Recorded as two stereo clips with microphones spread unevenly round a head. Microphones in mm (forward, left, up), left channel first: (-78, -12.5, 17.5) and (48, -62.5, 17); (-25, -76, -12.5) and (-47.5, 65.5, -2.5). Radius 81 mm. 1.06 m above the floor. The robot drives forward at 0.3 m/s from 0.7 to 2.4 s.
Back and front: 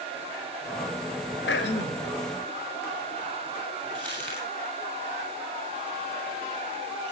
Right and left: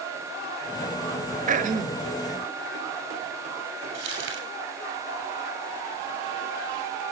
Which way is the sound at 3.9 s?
80° left.